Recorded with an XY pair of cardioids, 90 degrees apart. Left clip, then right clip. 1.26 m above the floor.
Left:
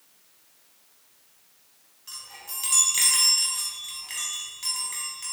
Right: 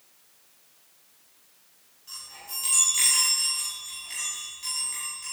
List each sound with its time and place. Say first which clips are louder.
2.1 s a chime: even; 55° left, 4.5 m